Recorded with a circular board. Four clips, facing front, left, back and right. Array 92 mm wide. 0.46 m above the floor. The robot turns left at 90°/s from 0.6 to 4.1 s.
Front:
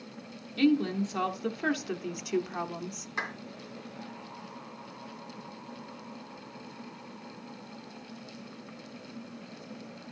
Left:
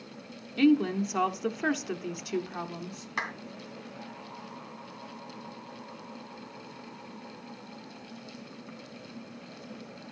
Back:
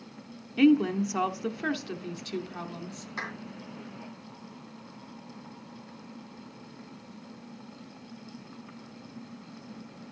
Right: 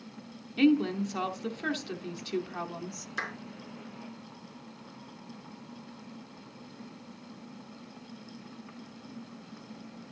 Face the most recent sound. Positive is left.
turn(degrees=0)